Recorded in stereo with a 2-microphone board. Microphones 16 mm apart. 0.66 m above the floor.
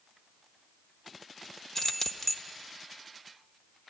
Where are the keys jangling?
20° left (ahead or behind), 1.0 m.